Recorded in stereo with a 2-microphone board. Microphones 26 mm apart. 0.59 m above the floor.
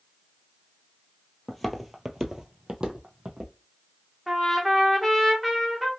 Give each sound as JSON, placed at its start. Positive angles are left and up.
{"t": 1.5, "sound": "footsteps", "side_deg": 5, "distance_m": 0.6}
{"t": 4.3, "sound": "a trumpet", "side_deg": -5, "distance_m": 1.1}